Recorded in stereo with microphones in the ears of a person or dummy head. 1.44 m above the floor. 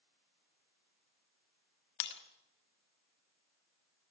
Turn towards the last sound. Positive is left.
turn(degrees=55)  # may be behind; listen again after turning